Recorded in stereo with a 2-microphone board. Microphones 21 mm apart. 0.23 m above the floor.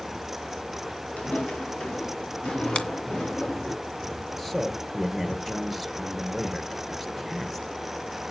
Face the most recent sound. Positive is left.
turn(degrees=10)  # may be behind; listen again after turning